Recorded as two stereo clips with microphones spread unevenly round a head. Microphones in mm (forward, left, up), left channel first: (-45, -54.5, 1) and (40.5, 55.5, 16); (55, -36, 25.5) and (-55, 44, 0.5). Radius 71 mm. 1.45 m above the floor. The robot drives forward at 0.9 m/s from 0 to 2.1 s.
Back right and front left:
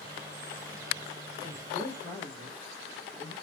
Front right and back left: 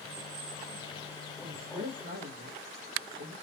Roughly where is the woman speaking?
Behind.